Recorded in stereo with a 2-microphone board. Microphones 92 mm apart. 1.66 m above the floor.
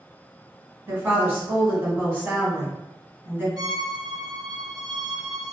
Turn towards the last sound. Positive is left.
turn(degrees=-45)  # may be behind; listen again after turning